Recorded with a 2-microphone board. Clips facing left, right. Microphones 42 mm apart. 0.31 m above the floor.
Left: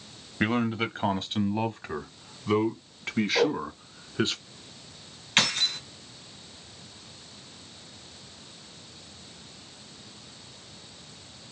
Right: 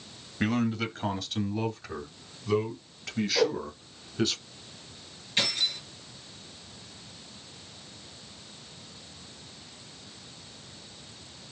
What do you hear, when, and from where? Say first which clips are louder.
0.4 s a man speaking: left 2 dB; 25° left (ahead or behind), 1.1 m; by 4.3 s 30° left (ahead or behind), 3 m
3.4 s a whoosh: left 1 dB; 25° left (ahead or behind), 1.2 m
5.4 s keys jangling: left 4 dB; 65° left (ahead or behind), 2.5 m